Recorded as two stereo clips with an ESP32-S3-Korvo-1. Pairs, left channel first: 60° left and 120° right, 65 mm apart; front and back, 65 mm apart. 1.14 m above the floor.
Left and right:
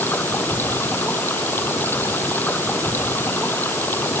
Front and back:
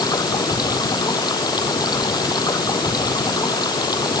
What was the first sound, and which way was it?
Running water, straight ahead.